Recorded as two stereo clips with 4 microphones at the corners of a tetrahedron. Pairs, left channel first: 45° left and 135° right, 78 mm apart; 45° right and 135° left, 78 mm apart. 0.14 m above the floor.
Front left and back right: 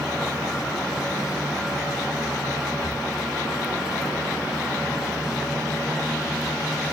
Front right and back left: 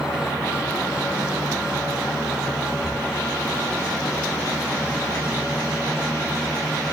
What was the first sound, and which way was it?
Breathing, 25° left.